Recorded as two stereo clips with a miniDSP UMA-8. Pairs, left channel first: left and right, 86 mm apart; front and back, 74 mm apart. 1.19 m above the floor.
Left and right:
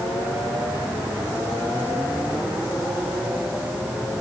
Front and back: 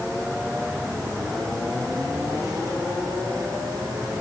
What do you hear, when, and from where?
Only background noise.